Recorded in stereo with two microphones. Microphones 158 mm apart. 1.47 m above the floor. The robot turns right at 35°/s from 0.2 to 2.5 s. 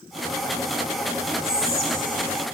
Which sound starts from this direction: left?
Whispering, at 1.4 s.